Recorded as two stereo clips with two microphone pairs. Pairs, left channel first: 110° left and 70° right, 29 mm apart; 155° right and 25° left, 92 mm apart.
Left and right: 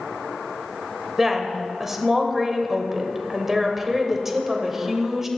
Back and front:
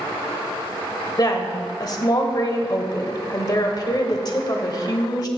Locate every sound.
1.2 s a woman speaking: 145° right, 1.2 m